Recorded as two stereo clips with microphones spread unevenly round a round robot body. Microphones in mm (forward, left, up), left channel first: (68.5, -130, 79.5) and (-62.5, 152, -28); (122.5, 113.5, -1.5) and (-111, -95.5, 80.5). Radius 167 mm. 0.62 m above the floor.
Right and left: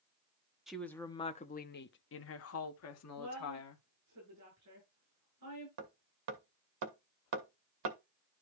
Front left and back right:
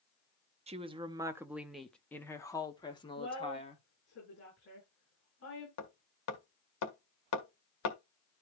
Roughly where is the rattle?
I don't hear a rattle.